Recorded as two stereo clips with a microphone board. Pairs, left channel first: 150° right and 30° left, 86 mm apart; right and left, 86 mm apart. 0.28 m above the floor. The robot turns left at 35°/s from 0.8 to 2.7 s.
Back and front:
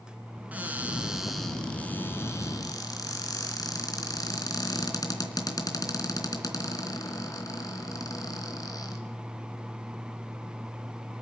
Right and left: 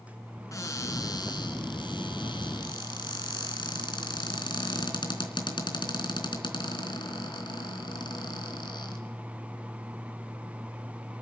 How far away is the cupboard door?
About 3.5 m.